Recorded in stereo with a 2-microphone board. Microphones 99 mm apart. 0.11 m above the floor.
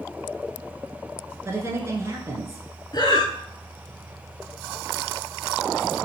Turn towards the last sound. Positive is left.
turn(degrees=50)  # may be behind; listen again after turning